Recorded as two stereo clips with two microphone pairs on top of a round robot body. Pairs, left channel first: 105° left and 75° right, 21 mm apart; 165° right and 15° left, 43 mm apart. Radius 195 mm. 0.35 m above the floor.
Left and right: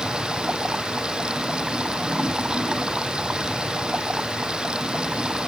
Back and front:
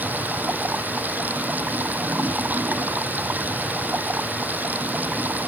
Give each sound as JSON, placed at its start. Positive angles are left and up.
{"t": 0.0, "sound": "running water", "azimuth_deg": -30}